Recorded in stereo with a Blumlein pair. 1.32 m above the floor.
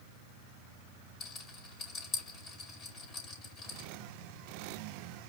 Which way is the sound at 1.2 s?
25° left.